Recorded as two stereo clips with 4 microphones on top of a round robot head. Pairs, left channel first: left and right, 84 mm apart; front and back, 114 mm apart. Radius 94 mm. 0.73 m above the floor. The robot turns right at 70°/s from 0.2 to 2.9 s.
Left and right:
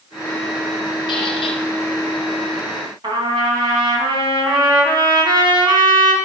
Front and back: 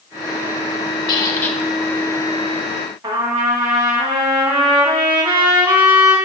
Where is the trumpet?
110° right, 3 m.